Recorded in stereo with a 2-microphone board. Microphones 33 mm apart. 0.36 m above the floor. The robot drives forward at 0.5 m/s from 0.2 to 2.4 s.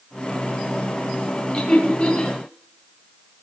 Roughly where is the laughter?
Left.